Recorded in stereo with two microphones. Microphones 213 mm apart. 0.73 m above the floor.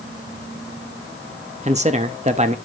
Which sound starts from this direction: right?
A man speaking, at 1.6 s.